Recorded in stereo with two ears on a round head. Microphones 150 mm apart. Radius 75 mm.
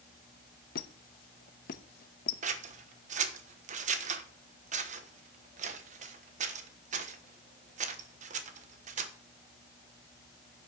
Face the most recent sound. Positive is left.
turn(degrees=-45)  # may be behind; listen again after turning